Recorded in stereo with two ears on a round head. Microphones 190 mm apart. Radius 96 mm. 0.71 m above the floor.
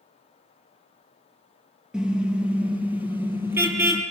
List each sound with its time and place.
1.9 s a car horn: 5° right (ahead or behind), 5.5 m; by 4.0 s 10° right (ahead or behind), 6.5 m